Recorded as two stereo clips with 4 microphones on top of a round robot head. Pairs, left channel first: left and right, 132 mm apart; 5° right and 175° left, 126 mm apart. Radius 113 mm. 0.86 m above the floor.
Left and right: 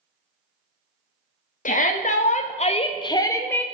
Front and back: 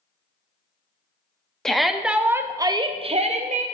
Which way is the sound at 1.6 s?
85° left.